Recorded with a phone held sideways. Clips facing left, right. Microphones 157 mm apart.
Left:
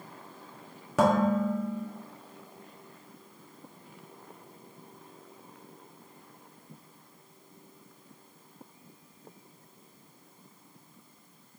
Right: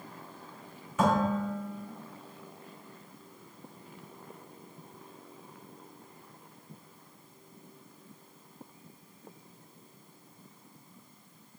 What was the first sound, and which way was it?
Dishes clattering, 85° left.